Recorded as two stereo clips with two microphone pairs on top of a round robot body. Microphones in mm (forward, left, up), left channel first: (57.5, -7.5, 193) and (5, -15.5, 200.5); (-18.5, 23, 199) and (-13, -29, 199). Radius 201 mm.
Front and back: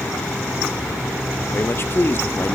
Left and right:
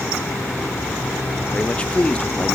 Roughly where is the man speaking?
Ahead left.